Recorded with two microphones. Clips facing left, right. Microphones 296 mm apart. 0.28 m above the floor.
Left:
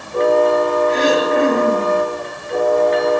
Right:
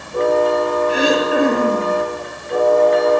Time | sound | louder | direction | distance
0.9 | throat clearing | left 1 dB | 10° right (ahead or behind) | 6.5 m